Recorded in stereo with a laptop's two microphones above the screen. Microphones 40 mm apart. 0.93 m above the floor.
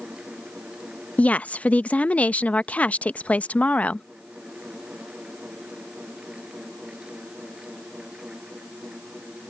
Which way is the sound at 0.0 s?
25° right (ahead or behind).